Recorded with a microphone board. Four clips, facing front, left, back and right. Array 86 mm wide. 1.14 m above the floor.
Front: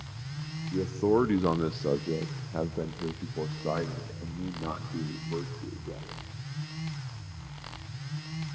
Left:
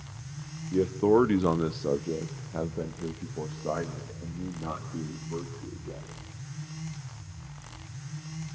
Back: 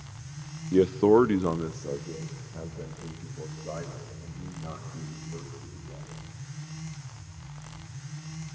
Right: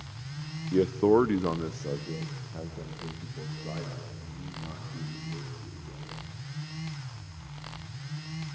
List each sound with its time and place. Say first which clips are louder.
0.7 s a man speaking: even, back 6 dB; 160° right, 0.7 m; by 6.1 s 30° left, 3.5 m